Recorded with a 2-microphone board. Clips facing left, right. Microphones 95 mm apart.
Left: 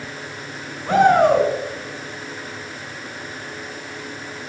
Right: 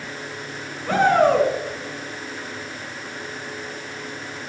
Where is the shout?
20° left (ahead or behind), 4 m.